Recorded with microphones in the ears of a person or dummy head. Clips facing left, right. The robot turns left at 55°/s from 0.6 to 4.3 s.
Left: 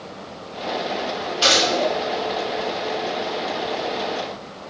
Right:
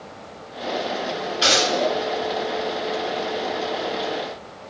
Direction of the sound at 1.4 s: 5° right (ahead or behind).